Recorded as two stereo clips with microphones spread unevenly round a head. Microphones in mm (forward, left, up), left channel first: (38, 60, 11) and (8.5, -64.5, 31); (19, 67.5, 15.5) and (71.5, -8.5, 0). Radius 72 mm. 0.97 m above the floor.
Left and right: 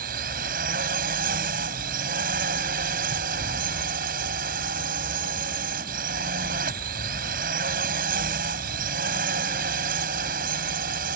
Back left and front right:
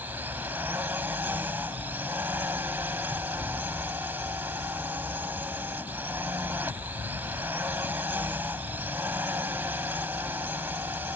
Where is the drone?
135° right.